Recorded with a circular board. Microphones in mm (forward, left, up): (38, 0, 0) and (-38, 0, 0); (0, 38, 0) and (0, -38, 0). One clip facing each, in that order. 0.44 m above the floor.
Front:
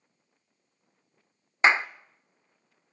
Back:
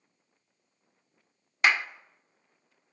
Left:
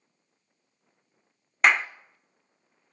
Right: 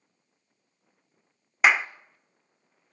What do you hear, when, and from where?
1.6 s a clap: 10° right, 0.6 m